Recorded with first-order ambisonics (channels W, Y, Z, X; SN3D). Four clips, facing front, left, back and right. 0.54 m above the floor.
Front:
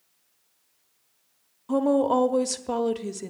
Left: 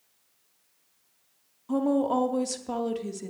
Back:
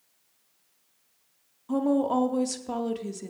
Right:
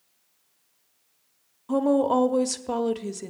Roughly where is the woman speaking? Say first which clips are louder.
Right 3 dB, front 3 dB; ahead right.